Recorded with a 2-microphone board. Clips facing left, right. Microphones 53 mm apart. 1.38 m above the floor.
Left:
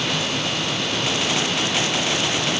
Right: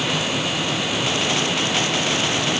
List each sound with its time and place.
Only background noise.